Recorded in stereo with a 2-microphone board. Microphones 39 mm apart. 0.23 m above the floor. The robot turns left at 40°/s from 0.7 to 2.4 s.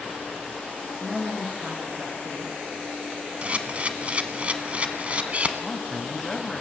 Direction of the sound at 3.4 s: 35° right (ahead or behind).